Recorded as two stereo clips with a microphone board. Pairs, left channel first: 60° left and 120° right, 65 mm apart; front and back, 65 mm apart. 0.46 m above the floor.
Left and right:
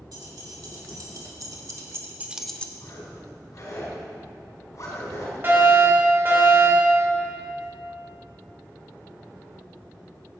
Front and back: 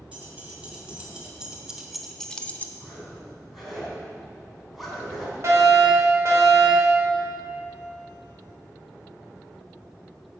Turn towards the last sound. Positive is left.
turn(degrees=-160)